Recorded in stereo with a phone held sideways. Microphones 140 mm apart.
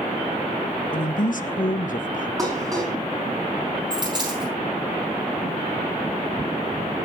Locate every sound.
0.9 s a woman speaking: 70° left (ahead or behind), 0.9 m
2.4 s dishes clattering: 25° right (ahead or behind), 6 m
3.9 s a dropped coin: 30° right (ahead or behind), 9.5 m